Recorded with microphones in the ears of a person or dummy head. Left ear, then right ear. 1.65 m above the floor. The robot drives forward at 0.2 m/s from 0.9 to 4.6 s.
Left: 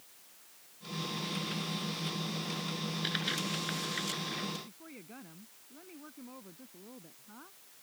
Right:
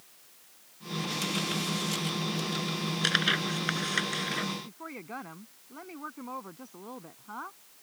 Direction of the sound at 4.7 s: 50° right (ahead or behind).